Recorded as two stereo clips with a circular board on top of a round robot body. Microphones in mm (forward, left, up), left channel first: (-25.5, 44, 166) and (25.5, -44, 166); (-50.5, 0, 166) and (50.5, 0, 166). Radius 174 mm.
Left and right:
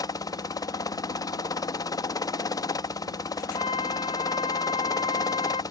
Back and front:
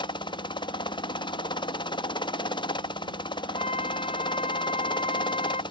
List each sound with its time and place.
0.0 s a helicopter: 160° left
3.5 s a flute: 155° left